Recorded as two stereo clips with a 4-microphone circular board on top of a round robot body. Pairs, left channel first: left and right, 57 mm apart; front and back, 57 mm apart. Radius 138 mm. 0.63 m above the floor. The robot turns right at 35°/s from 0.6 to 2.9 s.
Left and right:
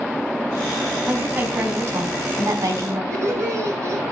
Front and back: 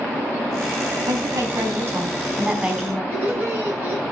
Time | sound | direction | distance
1.1 | a woman speaking | 160° right | 5 m
3.1 | laughter | 130° right | 9 m